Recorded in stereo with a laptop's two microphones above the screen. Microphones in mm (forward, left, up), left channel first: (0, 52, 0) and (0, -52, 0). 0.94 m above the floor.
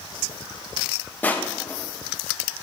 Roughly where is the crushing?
Centre.